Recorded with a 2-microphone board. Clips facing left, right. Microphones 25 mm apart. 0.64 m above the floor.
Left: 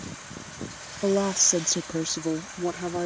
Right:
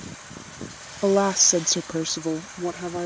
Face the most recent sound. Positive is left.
turn(degrees=5)  # may be behind; listen again after turning